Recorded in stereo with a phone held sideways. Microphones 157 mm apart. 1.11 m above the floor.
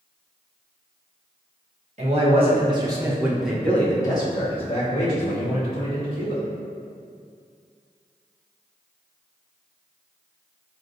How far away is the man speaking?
About 1.2 m.